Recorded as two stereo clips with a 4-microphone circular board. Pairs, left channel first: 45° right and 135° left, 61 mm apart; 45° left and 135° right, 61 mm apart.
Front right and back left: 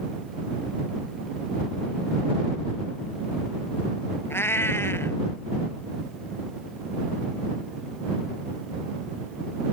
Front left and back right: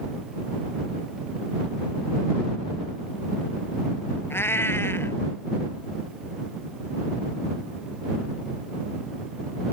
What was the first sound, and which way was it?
A cat meowing, straight ahead.